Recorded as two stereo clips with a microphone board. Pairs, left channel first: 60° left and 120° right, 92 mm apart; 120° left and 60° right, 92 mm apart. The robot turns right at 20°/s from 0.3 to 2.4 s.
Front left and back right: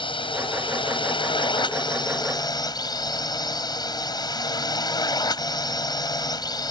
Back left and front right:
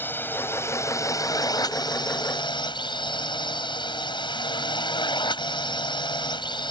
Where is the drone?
55° left; by 6.7 s 95° left.